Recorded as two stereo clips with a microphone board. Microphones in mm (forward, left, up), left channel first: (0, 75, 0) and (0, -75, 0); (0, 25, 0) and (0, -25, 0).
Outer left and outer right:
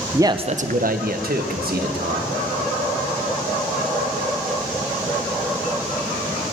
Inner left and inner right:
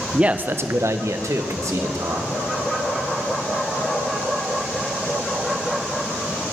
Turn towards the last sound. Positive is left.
turn(degrees=-80)